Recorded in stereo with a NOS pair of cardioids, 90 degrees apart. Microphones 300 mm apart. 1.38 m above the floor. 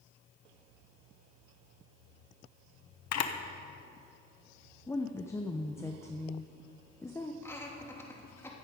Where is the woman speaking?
10° left, 0.8 m.